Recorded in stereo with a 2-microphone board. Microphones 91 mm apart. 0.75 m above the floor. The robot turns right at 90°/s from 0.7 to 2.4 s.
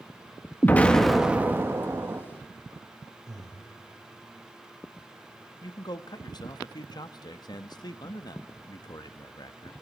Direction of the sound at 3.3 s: 40° right (ahead or behind).